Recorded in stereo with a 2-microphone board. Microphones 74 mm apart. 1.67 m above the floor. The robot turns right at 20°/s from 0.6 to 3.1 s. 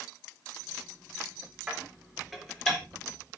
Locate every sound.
1.7 s dishes clattering: 15° right (ahead or behind), 4 m; by 2.8 s 5° left (ahead or behind), 4 m